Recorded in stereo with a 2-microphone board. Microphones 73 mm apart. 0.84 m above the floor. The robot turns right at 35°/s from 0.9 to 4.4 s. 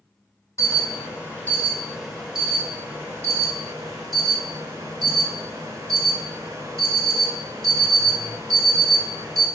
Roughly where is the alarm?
Behind left.